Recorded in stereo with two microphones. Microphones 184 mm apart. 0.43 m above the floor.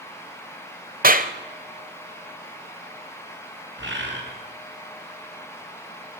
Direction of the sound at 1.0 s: 50° right (ahead or behind).